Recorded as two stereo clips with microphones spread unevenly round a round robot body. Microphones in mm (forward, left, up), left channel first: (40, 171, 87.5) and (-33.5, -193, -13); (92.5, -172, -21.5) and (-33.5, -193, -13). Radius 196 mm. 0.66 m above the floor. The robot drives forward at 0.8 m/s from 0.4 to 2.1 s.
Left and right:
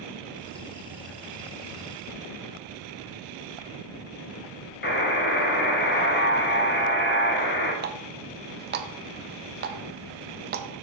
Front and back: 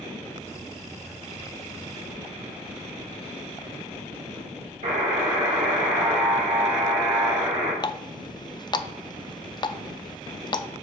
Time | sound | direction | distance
4.8 | a buzzer | 150° left | 1.2 m
7.8 | a running tap | 45° right | 0.6 m